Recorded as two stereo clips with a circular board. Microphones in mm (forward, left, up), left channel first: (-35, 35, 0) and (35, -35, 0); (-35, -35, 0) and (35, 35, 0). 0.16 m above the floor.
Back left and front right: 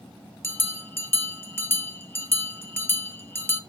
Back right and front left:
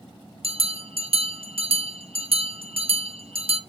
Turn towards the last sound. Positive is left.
turn(degrees=65)